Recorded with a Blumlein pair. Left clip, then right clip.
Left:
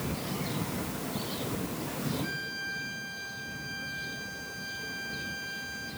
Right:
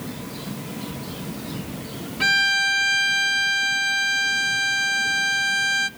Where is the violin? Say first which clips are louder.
Right 17 dB; 45° right, 0.6 m.